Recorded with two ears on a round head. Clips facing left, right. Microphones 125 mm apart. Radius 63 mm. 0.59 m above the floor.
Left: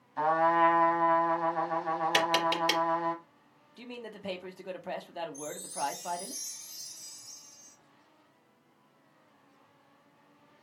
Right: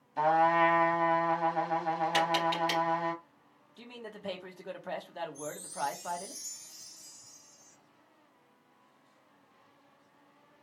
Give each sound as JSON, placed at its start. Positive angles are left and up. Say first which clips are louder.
{"t": 0.2, "sound": "a trumpet", "louder": "even", "side_deg": -25, "distance_m": 1.0}
{"t": 2.1, "sound": "tapping", "louder": "left 2 dB", "side_deg": 60, "distance_m": 2.5}
{"t": 3.8, "sound": "a man speaking", "louder": "left 2 dB", "side_deg": 10, "distance_m": 0.8}
{"t": 5.3, "sound": "a chime", "louder": "left 1 dB", "side_deg": 55, "distance_m": 2.0}